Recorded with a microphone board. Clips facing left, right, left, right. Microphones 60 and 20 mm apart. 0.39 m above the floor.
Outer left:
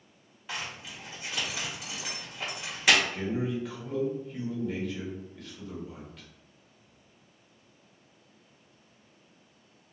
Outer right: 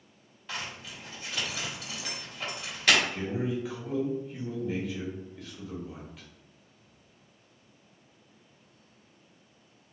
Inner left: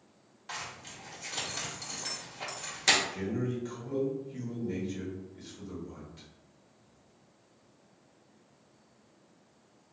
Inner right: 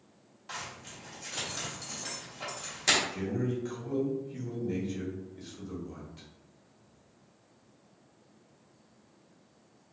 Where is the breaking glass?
No breaking glass in this recording.